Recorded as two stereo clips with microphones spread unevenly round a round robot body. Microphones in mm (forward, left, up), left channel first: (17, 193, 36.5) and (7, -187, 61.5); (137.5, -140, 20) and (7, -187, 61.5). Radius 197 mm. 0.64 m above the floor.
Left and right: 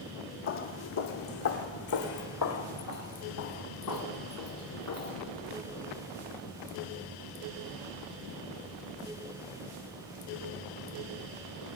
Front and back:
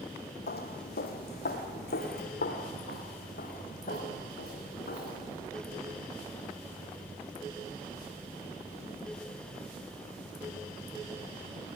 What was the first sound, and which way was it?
Footsteps, 30° left.